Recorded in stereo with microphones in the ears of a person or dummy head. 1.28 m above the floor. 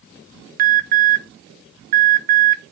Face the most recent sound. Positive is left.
turn(degrees=-50)  # may be behind; listen again after turning